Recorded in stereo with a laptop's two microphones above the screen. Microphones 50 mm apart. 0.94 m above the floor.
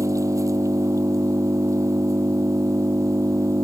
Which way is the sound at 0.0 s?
80° right.